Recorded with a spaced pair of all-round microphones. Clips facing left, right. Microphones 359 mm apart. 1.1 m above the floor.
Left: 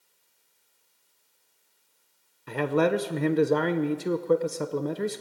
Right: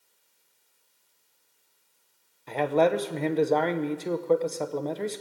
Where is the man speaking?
20° left (ahead or behind), 0.5 m.